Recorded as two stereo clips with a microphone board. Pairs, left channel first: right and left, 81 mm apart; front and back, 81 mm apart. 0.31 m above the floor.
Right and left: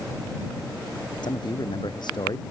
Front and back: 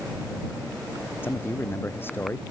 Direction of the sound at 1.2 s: 65° right.